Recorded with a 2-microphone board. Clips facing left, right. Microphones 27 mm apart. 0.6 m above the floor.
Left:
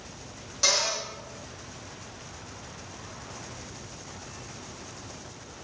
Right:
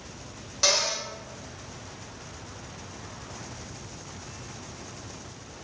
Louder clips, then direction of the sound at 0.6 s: Right 1 dB; 15° right (ahead or behind).